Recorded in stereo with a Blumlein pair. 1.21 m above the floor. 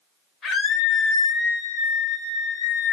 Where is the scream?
25° left, 3 m; by 2.9 s 45° left, 1.7 m.